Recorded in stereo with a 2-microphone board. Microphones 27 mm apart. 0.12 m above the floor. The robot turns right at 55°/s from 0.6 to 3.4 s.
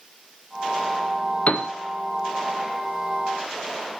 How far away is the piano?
About 1.1 m.